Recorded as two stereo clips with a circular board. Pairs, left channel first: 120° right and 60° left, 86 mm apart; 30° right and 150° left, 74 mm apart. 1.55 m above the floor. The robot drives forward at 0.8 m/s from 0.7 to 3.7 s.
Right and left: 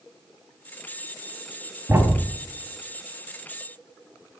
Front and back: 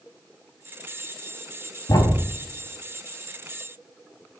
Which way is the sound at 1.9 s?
10° right.